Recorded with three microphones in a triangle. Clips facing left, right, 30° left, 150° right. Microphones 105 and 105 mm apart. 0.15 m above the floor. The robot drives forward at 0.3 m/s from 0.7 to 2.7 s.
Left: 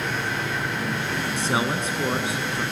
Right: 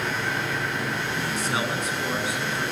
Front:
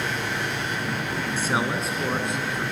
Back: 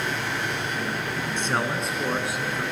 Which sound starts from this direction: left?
A man speaking, at 1.4 s.